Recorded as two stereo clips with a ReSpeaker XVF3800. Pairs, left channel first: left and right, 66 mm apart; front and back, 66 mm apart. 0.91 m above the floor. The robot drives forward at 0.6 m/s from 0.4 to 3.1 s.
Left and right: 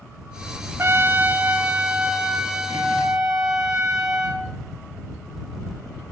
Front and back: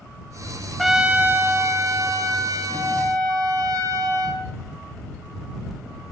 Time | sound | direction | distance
0.8 | a trumpet | 90° right | 0.5 m